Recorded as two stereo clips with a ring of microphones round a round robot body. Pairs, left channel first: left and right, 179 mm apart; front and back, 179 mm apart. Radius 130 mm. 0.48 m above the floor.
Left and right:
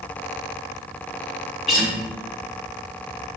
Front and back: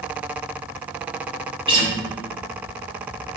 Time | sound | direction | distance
1.7 | a guitar | straight behind | 1.0 m